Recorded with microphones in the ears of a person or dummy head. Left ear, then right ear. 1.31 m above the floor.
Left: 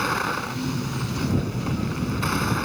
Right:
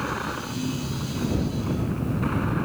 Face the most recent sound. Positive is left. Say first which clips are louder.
# left 5 dB
turn(degrees=85)